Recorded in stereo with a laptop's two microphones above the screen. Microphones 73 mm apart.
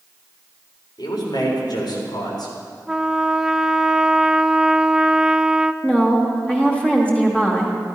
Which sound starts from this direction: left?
A man speaking, at 1.0 s.